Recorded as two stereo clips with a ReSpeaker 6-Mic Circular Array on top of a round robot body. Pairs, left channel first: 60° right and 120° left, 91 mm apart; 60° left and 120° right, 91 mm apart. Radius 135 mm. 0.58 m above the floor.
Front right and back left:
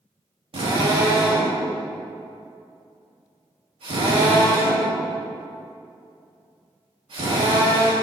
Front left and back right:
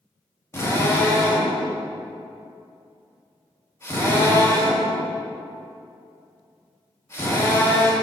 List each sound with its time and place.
0.5 s a drill: 120° left, 4.5 m